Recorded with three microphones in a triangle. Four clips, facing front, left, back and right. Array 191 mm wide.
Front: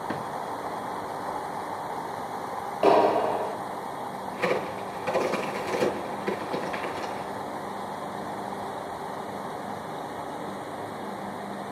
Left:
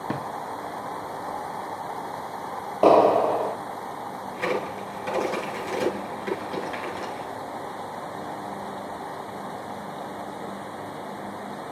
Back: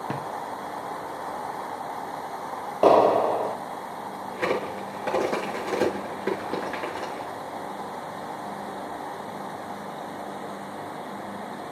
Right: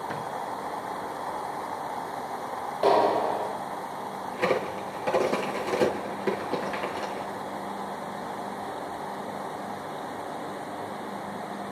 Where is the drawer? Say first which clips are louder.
Left 3 dB, even; 110° left, 1.6 m.